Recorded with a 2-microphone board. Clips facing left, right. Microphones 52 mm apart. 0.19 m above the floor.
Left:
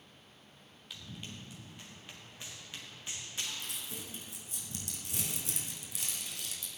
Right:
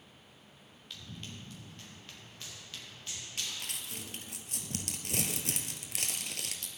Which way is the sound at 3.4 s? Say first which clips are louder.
Right 1 dB; 70° right (ahead or behind).